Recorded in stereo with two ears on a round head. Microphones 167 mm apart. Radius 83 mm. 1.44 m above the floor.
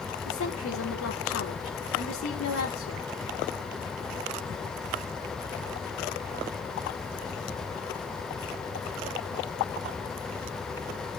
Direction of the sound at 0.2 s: 85° left.